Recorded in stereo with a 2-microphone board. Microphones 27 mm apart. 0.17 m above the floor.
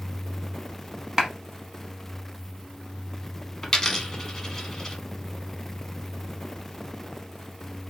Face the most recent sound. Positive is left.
turn(degrees=20)  # may be behind; listen again after turning